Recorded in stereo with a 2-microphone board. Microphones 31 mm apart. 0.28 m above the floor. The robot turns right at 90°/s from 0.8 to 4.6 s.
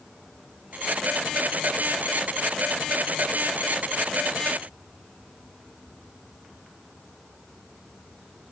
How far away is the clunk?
I don't hear a clunk.